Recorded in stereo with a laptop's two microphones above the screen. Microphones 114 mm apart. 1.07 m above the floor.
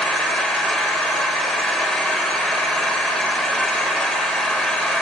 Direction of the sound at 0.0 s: 5° left (ahead or behind).